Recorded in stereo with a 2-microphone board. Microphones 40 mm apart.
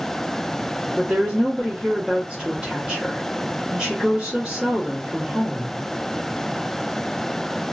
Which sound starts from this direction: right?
A woman speaking, at 1.0 s.